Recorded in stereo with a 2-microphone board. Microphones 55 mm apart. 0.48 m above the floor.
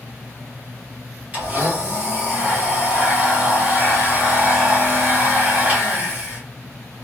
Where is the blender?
25° right (ahead or behind), 1.1 m.